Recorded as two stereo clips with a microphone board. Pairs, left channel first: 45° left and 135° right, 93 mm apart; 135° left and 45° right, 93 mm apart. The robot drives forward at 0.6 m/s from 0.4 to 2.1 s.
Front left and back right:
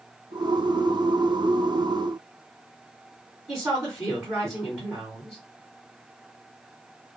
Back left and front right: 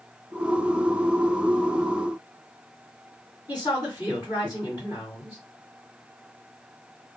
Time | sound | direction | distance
3.5 | a woman speaking | 150° left | 2 m